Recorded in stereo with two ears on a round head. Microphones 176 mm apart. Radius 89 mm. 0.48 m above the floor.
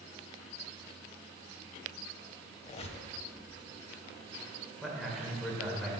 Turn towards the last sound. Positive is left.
turn(degrees=0)  # may be behind; listen again after turning